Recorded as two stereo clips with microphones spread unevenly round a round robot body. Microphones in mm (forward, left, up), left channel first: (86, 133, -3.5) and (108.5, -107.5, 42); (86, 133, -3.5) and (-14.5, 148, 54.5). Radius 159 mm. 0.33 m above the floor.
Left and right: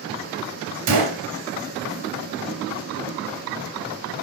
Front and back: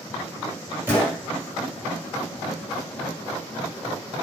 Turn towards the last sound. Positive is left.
turn(degrees=-100)